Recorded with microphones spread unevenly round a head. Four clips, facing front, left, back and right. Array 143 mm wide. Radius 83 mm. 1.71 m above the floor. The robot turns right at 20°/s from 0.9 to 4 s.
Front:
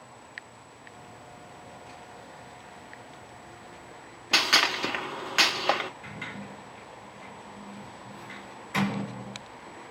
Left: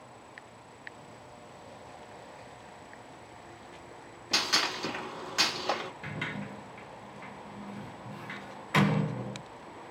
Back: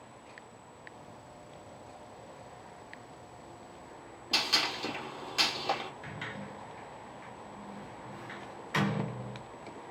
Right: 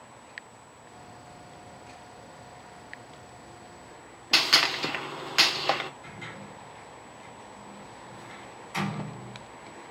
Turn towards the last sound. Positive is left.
turn(degrees=90)